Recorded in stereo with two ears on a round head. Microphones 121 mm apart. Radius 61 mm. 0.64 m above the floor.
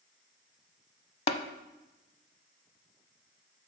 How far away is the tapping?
About 0.6 m.